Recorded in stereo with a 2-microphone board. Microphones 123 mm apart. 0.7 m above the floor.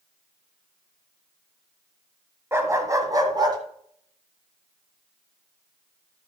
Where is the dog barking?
20° right (ahead or behind), 1.6 m; by 3.6 s 35° right (ahead or behind), 2 m.